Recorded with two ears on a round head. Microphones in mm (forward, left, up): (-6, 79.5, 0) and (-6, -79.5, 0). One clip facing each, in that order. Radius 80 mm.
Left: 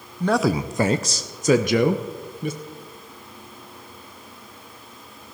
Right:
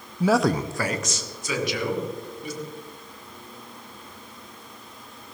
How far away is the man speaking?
About 0.6 m.